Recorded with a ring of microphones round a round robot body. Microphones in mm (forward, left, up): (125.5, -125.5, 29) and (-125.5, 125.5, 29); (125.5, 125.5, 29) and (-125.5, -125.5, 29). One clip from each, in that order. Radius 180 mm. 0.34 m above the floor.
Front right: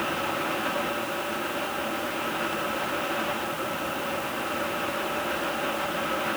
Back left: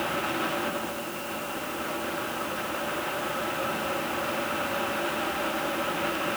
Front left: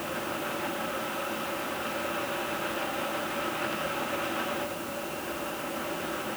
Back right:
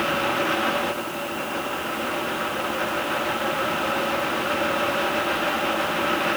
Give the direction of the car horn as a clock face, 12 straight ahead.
No car horn in this recording.